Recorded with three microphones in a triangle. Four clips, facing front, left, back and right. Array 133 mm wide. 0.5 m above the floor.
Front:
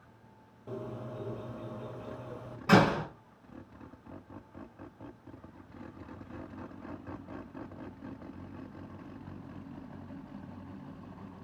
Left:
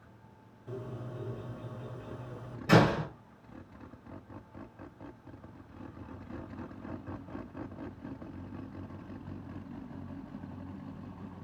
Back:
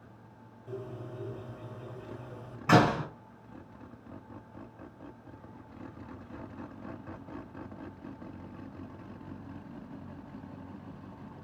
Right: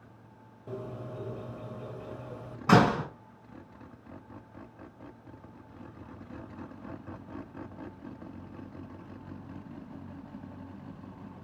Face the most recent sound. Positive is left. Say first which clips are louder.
# right 2 dB, back 1 dB
turn(degrees=-95)